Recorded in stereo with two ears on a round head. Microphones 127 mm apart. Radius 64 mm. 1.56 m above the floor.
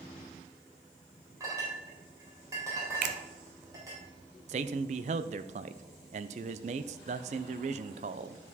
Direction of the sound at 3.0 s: 60° right (ahead or behind).